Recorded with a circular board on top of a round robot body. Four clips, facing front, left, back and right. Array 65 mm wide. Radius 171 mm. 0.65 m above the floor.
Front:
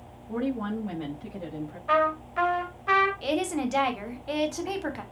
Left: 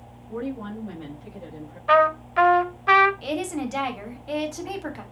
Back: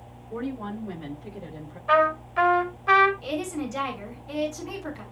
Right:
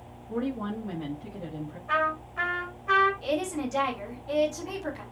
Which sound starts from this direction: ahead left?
A woman speaking, at 3.2 s.